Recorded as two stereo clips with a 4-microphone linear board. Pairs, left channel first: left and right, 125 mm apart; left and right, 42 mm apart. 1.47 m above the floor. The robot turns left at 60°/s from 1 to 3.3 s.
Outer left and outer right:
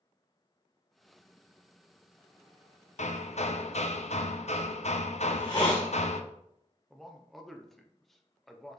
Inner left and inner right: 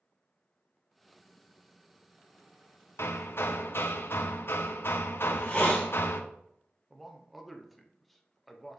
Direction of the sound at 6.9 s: Centre (ahead or behind).